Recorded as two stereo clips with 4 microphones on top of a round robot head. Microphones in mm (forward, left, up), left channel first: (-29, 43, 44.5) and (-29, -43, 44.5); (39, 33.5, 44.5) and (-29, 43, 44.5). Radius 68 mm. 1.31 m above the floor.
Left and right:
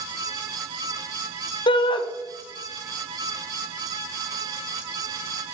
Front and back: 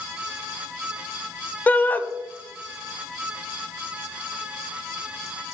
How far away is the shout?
About 0.8 m.